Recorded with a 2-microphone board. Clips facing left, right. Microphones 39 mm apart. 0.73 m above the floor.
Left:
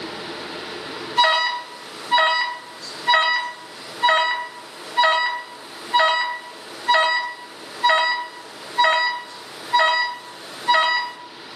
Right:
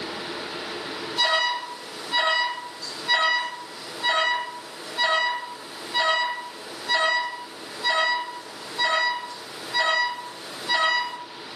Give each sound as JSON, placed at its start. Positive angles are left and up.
{"t": 1.2, "sound": "an alarm", "side_deg": 55, "distance_m": 1.3}